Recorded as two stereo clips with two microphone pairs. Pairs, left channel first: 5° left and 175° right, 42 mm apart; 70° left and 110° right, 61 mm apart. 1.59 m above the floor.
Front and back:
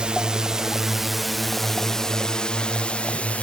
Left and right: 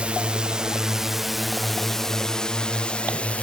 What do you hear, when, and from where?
0.0 s a drone: 150° right; by 3.5 s 20° left